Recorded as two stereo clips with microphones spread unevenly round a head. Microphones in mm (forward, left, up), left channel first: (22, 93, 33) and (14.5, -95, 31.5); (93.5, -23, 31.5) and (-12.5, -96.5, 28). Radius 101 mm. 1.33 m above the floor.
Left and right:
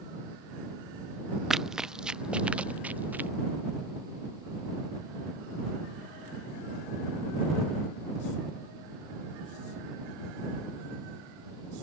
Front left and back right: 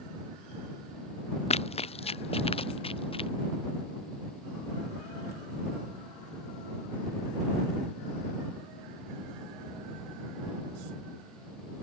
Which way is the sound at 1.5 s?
5° right.